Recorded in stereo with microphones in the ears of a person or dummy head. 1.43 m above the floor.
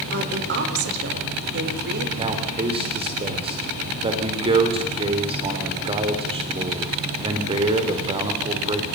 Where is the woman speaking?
65° right (ahead or behind), 4.5 m.